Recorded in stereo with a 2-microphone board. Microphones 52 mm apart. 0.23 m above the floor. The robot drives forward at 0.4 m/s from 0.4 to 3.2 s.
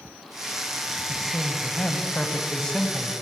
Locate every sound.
1.1 s a man speaking: 20° left (ahead or behind), 1.6 m; by 3.1 s 15° left (ahead or behind), 1.9 m